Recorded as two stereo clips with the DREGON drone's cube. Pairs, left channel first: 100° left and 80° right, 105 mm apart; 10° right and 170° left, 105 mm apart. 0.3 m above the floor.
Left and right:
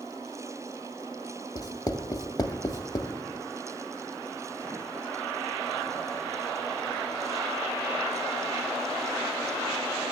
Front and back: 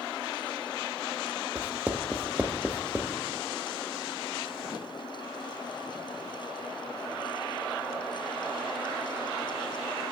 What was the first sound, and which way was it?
Writing, 105° left.